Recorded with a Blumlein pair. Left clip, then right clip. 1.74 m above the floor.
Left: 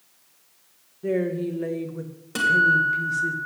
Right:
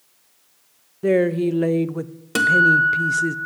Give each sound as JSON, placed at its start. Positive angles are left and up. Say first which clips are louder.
{"t": 1.0, "sound": "a woman speaking", "louder": "right 7 dB", "azimuth_deg": -30, "distance_m": 0.6}
{"t": 2.4, "sound": "a guitar", "louder": "right 4 dB", "azimuth_deg": -25, "distance_m": 1.4}